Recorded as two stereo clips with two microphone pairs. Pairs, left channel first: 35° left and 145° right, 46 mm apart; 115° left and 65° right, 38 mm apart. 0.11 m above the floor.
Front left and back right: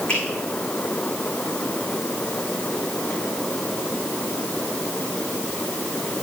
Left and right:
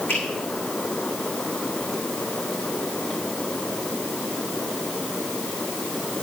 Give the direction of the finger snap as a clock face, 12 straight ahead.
9 o'clock.